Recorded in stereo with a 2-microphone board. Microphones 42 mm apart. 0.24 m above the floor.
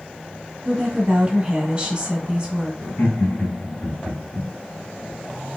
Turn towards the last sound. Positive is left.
turn(degrees=45)  # may be behind; listen again after turning